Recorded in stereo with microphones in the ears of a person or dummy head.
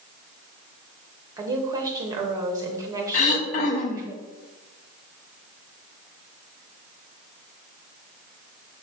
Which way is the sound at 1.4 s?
20° right (ahead or behind).